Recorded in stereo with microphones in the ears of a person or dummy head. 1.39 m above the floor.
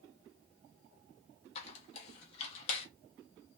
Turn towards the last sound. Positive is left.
turn(degrees=40)  # may be behind; listen again after turning